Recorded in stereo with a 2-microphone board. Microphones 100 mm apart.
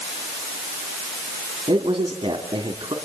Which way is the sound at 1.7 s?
55° right (ahead or behind).